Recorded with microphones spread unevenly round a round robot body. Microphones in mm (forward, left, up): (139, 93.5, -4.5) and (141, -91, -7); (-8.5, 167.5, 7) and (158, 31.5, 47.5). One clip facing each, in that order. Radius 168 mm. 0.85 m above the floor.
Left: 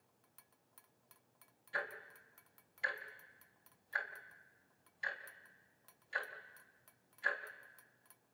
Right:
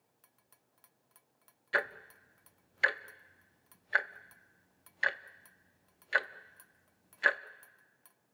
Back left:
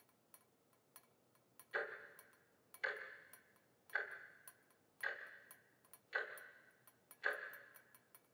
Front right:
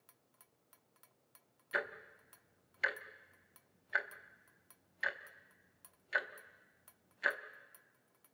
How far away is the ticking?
About 0.7 m.